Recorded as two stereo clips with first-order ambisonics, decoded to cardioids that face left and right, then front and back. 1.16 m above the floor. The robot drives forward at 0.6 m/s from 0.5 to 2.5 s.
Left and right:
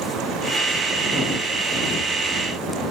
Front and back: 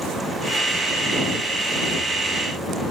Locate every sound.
Only background noise.